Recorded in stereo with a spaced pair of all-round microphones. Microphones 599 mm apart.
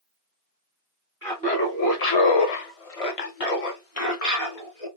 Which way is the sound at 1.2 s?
5° left (ahead or behind).